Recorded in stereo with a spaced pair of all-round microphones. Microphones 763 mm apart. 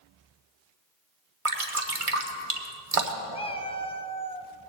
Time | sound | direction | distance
1.4 | dripping | 45° right (ahead or behind) | 1.2 m
3.3 | a cat meowing | 10° left (ahead or behind) | 0.6 m